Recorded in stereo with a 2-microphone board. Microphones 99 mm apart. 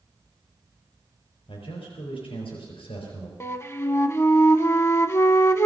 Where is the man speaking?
70° left (ahead or behind), 5 m.